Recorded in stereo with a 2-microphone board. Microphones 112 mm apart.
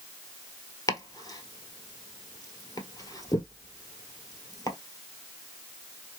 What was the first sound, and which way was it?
Chopping, 35° left (ahead or behind).